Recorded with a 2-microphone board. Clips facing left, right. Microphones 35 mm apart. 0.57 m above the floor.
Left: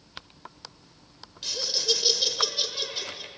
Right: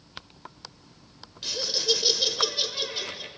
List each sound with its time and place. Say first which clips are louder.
1.4 s laughter: right 1 dB; 5° right (ahead or behind), 1.7 m